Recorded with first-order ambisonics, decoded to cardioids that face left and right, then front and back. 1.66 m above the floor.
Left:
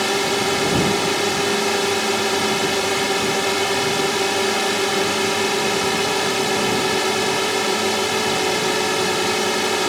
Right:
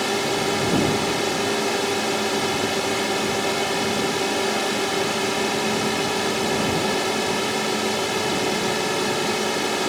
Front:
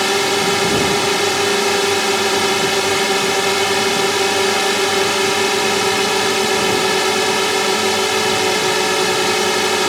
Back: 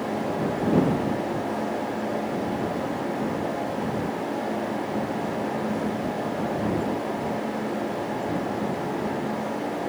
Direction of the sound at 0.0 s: 10° left.